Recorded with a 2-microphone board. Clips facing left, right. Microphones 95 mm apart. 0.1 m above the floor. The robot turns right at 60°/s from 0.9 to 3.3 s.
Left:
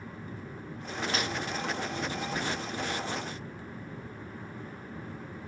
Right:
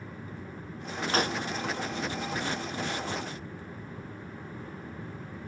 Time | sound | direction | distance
1.1 | a gunshot | 45° right (ahead or behind) | ?